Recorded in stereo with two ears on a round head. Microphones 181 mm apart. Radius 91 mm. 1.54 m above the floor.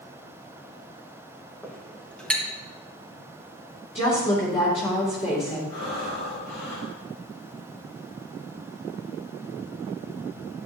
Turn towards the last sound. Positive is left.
turn(degrees=65)  # may be behind; listen again after turning